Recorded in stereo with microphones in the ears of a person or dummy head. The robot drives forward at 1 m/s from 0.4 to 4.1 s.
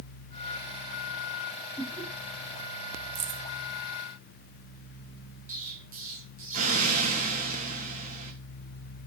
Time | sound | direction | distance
1.8 | laughter | 5° right (ahead or behind) | 2.5 m
3.1 | keys jangling | 40° right (ahead or behind) | 0.9 m
5.5 | an explosion | 40° right (ahead or behind) | 1.2 m